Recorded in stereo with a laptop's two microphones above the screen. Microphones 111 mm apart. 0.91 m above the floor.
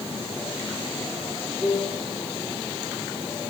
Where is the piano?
15° left (ahead or behind), 6 m.